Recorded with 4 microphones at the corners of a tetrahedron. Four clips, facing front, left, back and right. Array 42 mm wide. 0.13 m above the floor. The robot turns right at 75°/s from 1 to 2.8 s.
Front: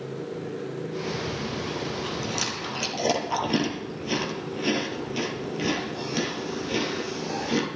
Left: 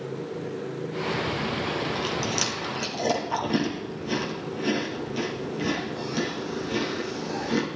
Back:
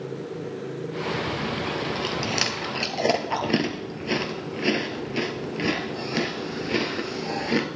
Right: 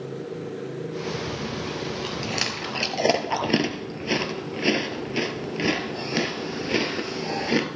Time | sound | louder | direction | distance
1.3 | chewing | left 2 dB, back 3 dB | 130° left | 1.5 m